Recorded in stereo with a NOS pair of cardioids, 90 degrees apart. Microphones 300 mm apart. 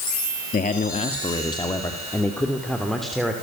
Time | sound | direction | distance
0.5 | a man speaking | 30° left | 1.9 m